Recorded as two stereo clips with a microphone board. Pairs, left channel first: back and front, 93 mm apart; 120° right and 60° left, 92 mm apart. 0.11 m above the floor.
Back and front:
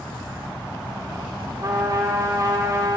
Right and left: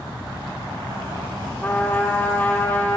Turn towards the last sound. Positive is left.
turn(degrees=-50)